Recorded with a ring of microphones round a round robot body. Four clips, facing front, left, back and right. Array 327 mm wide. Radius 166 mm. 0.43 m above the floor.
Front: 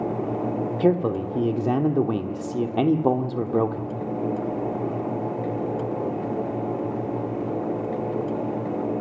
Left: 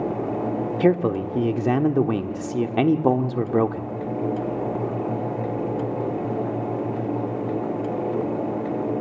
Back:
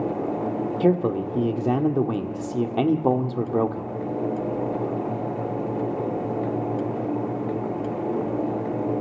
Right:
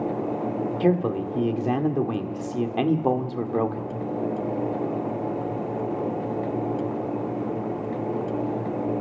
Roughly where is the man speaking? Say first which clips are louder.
Left 3 dB, even; left.